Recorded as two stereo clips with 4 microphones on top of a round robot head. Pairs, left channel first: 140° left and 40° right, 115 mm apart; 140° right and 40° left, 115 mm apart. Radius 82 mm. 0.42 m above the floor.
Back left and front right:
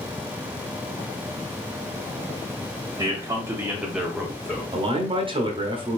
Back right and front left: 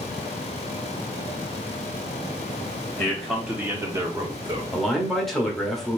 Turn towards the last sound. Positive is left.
turn(degrees=-55)